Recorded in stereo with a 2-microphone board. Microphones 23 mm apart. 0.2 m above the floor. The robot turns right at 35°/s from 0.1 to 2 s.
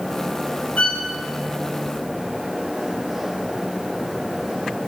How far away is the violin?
About 4 m.